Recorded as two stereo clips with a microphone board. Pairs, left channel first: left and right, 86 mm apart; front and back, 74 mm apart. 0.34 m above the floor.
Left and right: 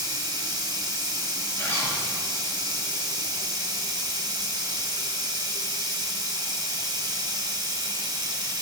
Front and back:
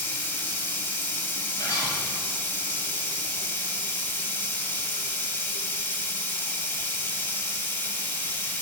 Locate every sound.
0.0 s running water: 60° right, 1.2 m
1.6 s a zipper: 25° left, 3 m